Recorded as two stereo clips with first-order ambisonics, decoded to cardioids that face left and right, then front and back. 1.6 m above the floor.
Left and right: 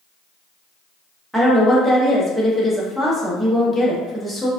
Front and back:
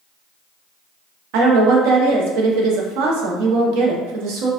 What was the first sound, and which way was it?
A woman speaking, straight behind.